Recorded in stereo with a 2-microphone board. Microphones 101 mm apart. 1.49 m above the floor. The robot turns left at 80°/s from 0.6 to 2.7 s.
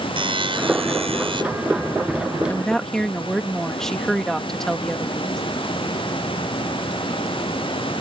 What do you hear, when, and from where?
0.2 s a buzzer: 60° right; by 1.4 s 125° right
2.5 s a woman speaking: 25° left (ahead or behind); by 5.4 s 5° left (ahead or behind)